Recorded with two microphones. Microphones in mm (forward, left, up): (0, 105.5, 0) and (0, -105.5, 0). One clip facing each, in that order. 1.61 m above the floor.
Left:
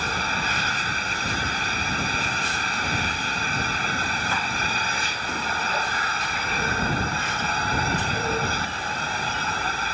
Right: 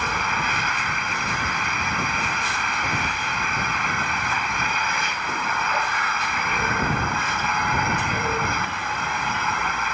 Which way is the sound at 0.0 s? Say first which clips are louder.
Right 1 dB; 35° left (ahead or behind).